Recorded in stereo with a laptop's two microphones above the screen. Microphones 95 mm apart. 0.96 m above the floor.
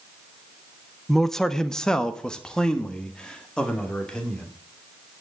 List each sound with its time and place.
1.1 s a man speaking: centre (ahead or behind), 0.6 m; by 4.5 s 10° left (ahead or behind), 2.5 m